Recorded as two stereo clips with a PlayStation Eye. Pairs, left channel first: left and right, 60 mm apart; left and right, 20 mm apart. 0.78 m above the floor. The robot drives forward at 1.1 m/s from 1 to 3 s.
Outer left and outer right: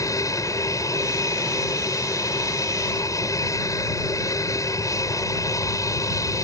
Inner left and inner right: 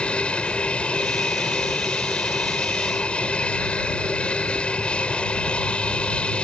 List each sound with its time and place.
0.0 s an aircraft: 65° left (ahead or behind)